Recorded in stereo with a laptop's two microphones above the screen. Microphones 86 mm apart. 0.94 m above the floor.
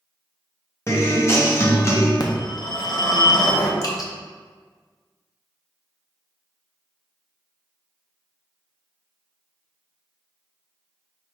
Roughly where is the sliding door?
I don't hear a sliding door.